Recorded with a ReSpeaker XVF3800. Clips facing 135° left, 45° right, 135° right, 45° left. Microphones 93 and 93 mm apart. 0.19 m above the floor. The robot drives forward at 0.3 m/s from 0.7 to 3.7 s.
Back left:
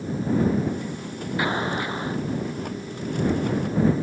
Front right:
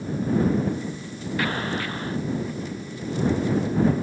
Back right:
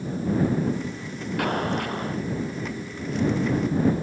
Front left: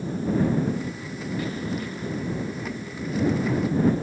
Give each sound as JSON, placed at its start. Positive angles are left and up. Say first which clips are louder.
{"t": 1.4, "sound": "an explosion", "louder": "back left 2 dB, back right 7 dB", "azimuth_deg": -155}